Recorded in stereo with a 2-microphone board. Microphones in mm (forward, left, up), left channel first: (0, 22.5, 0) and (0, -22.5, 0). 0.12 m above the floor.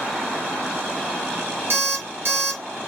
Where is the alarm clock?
45° right (ahead or behind), 1.3 m.